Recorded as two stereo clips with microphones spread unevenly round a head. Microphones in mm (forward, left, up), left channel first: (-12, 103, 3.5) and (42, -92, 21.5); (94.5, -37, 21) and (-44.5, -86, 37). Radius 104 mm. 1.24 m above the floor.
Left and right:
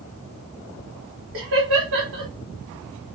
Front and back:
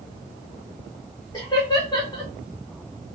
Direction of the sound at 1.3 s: 45° right.